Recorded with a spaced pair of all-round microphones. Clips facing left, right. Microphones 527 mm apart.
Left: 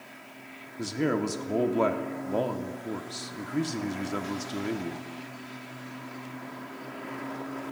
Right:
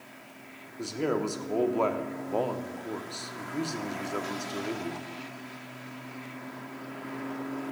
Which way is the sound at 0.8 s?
45° left (ahead or behind).